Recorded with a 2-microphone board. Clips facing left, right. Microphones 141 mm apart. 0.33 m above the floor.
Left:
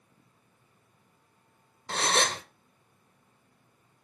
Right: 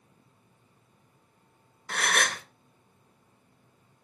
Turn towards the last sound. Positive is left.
turn(degrees=30)  # may be behind; listen again after turning